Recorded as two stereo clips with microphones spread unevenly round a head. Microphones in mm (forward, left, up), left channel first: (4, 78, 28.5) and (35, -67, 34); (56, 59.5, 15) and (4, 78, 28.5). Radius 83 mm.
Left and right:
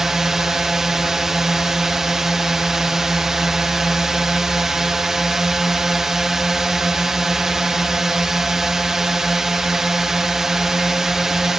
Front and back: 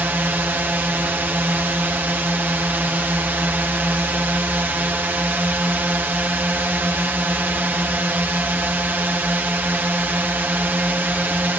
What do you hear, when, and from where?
0.0 s a drone: 165° right